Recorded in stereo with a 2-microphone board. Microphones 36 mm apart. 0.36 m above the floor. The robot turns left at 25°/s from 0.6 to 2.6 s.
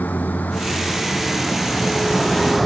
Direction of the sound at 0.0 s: 50° left.